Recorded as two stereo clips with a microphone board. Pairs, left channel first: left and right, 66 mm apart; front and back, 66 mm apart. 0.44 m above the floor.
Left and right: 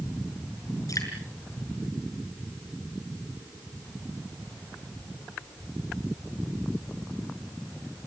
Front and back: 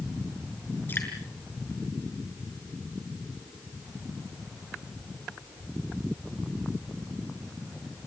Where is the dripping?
60° left, 7 m.